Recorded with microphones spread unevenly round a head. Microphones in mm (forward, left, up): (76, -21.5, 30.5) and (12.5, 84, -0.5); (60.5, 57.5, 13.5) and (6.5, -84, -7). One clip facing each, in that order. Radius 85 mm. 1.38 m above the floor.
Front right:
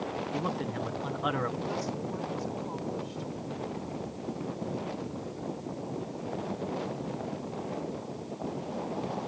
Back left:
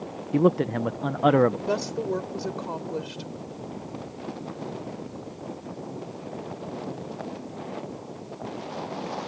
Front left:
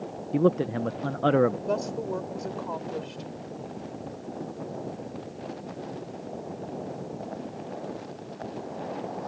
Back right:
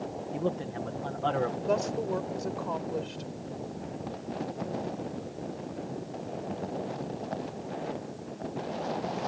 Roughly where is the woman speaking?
Behind.